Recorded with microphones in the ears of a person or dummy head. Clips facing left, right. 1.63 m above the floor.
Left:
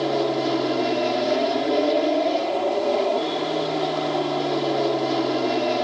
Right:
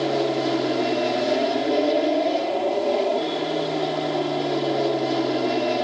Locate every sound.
0.0 s an aircraft: centre (ahead or behind)